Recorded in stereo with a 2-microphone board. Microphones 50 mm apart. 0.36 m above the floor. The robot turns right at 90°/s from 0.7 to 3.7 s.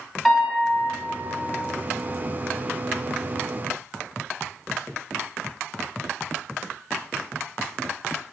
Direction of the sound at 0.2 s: Centre (ahead or behind).